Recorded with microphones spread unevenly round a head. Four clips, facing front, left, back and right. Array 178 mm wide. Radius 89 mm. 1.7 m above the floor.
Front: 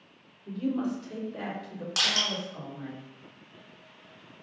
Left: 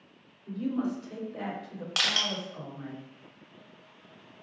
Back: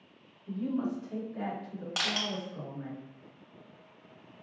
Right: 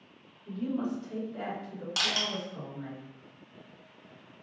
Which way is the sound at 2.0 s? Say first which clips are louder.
Left 1 dB, front 2 dB; 150° left.